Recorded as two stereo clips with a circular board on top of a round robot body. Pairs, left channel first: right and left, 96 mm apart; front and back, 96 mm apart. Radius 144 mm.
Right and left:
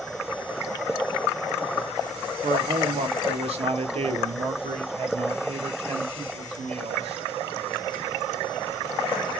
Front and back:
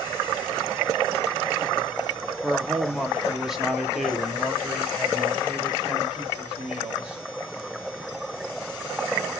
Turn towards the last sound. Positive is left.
turn(degrees=100)